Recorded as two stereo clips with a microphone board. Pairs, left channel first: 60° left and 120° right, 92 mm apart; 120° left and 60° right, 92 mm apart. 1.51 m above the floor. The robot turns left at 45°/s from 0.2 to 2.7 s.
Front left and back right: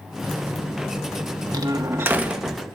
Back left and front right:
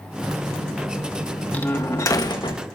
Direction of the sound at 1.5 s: 165° right.